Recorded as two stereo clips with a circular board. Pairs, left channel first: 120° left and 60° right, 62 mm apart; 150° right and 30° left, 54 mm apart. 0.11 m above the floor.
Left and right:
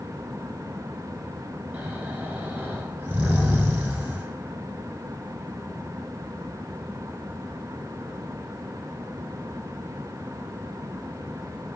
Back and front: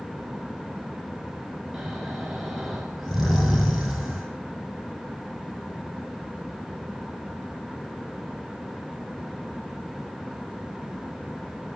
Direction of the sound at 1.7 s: 35° right.